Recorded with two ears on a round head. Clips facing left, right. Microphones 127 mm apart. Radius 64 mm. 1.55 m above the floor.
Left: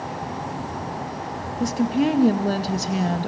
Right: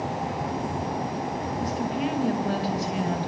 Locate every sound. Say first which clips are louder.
1.6 s a woman speaking: left 9 dB; 55° left (ahead or behind), 2.5 m